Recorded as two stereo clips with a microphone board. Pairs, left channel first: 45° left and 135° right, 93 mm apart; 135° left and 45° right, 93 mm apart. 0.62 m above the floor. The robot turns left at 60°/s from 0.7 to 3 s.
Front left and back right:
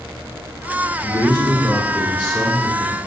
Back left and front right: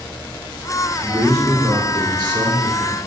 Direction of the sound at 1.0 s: 10° left.